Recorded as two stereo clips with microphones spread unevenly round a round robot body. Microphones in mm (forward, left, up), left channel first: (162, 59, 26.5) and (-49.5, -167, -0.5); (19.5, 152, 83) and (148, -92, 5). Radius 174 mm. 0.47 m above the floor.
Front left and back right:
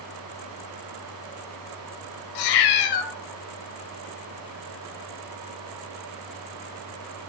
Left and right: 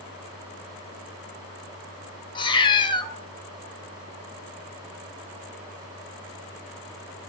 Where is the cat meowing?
45° left, 0.7 m.